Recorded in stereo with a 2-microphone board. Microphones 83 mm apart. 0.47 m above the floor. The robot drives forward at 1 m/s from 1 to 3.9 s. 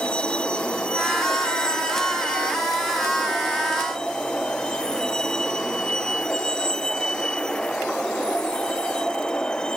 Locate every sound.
0.0 s a vehicle: 10° left (ahead or behind)